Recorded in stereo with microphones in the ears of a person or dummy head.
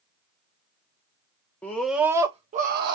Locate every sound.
1.6 s a scream: 5° left (ahead or behind), 0.8 m; by 3.0 s 60° right (ahead or behind), 0.7 m